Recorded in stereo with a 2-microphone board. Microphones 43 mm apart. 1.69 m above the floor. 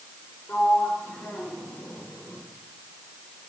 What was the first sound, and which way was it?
A sliding door, 60° left (ahead or behind).